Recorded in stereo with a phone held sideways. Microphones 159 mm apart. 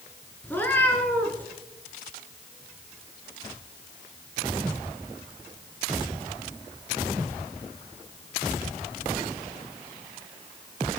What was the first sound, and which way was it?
A cat meowing, 10° left (ahead or behind).